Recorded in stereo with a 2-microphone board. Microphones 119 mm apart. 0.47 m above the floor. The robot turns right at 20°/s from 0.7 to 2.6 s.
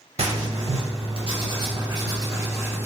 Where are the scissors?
No scissors in this recording.